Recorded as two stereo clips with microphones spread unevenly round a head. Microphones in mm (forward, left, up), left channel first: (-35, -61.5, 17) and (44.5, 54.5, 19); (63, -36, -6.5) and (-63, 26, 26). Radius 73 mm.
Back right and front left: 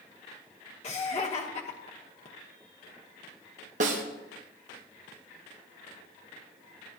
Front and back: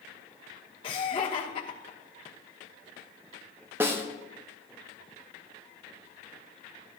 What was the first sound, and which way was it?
Laughter, 80° right.